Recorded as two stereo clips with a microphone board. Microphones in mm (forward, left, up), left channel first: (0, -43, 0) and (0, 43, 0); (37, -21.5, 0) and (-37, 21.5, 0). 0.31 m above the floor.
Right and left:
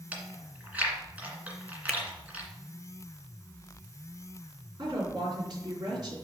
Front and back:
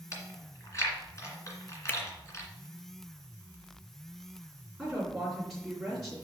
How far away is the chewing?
About 1.9 m.